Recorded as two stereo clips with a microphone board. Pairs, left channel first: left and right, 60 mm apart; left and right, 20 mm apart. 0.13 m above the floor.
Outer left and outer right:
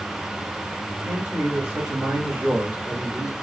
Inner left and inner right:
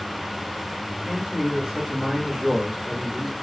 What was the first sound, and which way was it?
A man speaking, 40° right (ahead or behind).